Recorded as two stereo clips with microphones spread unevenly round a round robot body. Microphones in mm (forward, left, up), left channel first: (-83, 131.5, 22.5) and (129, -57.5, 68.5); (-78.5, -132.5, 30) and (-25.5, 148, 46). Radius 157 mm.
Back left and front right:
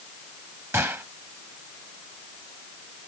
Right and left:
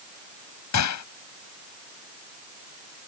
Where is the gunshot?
125° right.